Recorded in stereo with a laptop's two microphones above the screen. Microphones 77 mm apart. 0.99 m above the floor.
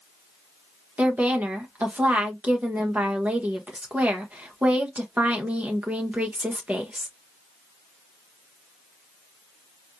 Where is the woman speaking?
20° right (ahead or behind), 0.9 m.